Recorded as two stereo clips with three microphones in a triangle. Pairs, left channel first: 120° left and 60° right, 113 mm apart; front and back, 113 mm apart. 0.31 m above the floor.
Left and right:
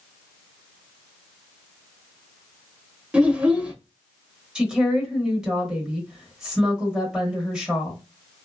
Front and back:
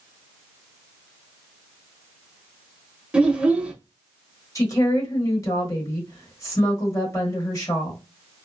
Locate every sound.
3.1 s a child speaking: 120° right, 0.6 m
4.5 s a woman speaking: 15° left, 1.1 m